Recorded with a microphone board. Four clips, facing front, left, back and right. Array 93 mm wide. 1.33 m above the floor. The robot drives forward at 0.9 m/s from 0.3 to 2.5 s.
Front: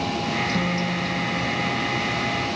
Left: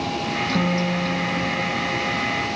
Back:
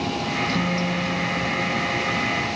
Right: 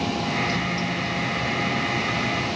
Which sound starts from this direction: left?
A guitar, at 0.5 s.